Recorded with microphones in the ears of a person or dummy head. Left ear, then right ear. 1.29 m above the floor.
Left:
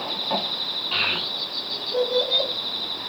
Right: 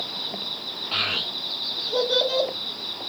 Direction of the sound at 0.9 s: 15° left (ahead or behind).